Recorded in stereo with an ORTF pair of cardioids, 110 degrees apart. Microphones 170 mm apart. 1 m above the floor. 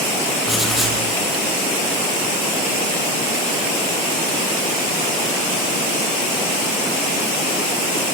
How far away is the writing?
About 6.5 m.